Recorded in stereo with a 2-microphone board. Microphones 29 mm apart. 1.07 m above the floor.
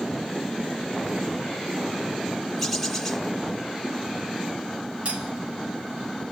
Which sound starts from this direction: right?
Cutlery clinking, at 5.0 s.